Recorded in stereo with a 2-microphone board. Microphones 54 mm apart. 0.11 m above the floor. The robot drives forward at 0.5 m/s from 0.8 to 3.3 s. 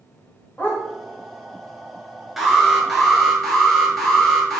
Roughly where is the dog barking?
Left.